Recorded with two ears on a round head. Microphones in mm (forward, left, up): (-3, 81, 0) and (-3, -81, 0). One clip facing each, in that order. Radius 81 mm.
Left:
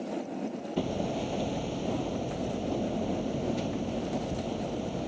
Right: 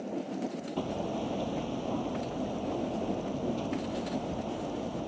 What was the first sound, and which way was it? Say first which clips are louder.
Hammering: left 3 dB; 20° left (ahead or behind).